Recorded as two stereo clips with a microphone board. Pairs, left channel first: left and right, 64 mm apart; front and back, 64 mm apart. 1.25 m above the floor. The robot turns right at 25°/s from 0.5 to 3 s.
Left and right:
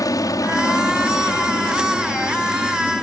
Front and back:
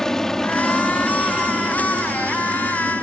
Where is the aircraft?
85° left; by 3.0 s 145° left.